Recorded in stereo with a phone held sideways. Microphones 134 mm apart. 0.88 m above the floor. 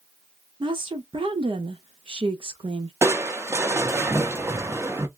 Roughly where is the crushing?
Centre.